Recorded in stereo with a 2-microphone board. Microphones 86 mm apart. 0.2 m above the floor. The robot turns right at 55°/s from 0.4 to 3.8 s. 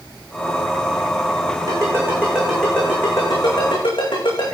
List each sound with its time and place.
1.7 s a ringtone: 45° right (ahead or behind), 6.5 m; by 4.5 s 70° left (ahead or behind), 6.5 m